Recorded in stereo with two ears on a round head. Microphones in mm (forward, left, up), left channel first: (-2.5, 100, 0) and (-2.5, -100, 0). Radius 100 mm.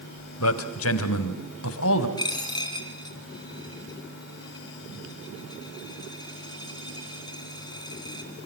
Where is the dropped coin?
20° left (ahead or behind), 4 m.